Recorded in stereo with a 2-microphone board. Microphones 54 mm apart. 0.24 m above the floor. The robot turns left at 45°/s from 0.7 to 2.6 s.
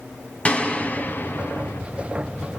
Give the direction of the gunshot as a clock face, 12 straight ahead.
7 o'clock.